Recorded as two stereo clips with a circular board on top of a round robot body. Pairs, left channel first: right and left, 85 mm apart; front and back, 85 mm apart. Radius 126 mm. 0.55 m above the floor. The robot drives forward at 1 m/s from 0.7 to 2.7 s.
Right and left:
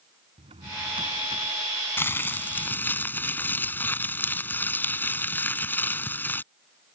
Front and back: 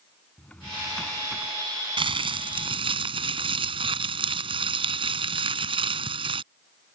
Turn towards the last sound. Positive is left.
turn(degrees=-160)